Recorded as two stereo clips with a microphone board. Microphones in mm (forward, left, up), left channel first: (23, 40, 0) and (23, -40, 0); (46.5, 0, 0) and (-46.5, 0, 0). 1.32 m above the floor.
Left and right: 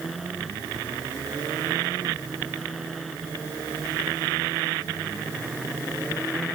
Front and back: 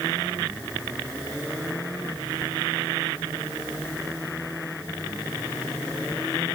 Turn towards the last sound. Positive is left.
No sound to turn to.